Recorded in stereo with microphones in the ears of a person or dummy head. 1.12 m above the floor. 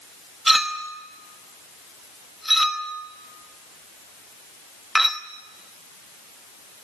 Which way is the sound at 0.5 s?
5° right (ahead or behind).